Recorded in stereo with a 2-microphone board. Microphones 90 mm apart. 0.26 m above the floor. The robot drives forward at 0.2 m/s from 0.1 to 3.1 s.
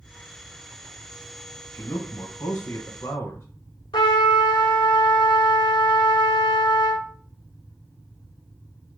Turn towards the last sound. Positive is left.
turn(degrees=65)  # may be behind; listen again after turning